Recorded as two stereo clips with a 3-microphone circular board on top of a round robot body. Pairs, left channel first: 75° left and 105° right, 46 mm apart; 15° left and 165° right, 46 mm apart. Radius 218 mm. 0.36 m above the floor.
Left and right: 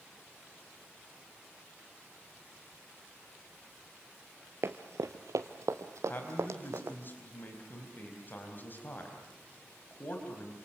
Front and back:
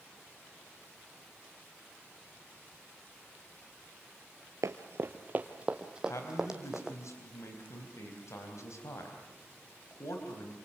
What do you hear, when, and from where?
4.6 s running footsteps: 145° right, 0.6 m; by 7.0 s 80° right, 2 m
6.1 s a man speaking: 25° left, 4 m